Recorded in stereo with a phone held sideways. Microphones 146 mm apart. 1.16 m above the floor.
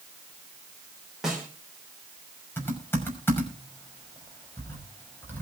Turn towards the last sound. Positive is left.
turn(degrees=15)  # may be behind; listen again after turning